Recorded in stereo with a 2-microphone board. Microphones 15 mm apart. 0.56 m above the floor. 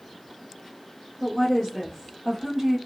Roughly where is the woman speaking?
Centre.